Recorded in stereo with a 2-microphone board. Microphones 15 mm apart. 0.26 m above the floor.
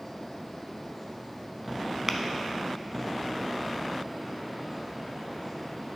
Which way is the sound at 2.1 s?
40° right (ahead or behind).